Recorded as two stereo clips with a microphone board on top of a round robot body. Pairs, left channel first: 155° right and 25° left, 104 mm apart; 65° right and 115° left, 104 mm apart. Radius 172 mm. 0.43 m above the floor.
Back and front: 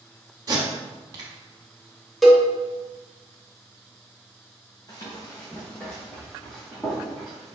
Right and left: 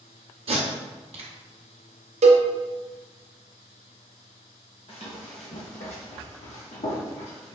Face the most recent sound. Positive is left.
turn(degrees=-70)